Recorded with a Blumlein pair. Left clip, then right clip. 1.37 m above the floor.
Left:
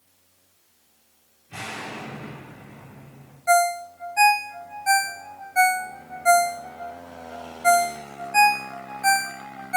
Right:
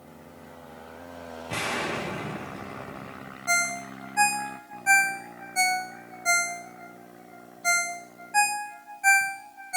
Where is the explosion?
50° right, 3 m.